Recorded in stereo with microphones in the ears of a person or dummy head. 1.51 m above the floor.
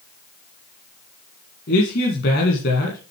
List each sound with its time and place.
1.7 s a man speaking: 60° left (ahead or behind), 2.0 m